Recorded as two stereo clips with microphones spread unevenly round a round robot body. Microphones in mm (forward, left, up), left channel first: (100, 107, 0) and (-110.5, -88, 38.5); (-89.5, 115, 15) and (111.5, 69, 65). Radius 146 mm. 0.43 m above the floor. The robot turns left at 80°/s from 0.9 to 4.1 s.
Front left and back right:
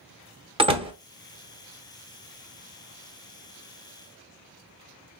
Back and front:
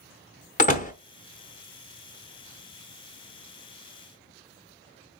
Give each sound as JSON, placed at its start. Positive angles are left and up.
{"t": 0.6, "sound": "a door slam", "azimuth_deg": 150, "distance_m": 0.8}